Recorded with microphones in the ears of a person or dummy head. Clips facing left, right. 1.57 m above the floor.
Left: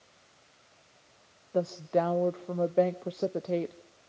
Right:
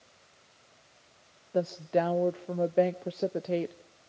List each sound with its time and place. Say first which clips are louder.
1.5 s a woman speaking: even; centre (ahead or behind), 0.5 m